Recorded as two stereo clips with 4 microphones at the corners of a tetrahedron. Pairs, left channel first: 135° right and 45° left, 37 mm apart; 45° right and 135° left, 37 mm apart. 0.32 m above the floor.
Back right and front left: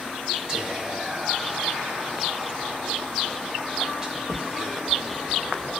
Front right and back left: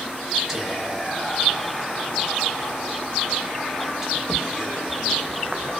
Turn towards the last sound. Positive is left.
turn(degrees=85)